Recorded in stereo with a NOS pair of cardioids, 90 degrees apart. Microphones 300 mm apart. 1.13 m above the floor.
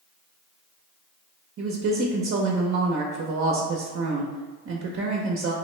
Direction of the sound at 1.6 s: 45° right.